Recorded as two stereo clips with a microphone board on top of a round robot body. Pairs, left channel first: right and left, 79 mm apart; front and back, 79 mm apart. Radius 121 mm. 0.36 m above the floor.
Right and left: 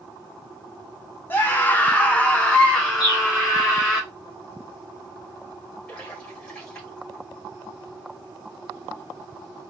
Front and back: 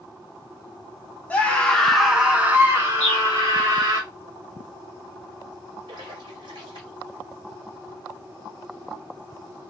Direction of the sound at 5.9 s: 165° right.